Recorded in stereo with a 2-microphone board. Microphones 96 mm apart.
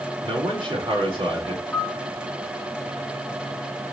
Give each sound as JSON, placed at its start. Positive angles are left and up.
{"t": 0.2, "sound": "a man speaking", "side_deg": -60, "distance_m": 4.0}
{"t": 1.7, "sound": "a piano", "side_deg": 10, "distance_m": 1.8}